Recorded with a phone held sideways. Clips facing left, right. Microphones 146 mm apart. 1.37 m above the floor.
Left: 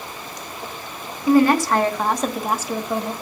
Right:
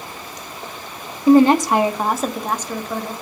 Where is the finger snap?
I don't hear a finger snap.